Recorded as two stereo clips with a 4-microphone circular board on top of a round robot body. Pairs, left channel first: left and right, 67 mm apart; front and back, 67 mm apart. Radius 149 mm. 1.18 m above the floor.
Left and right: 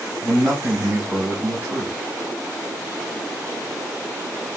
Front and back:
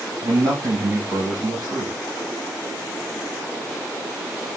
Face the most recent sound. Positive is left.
turn(degrees=-150)